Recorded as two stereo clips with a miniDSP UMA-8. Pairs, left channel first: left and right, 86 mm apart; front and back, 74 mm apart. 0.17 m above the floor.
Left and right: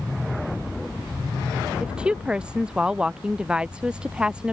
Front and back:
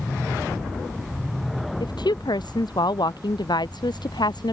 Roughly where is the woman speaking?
Ahead.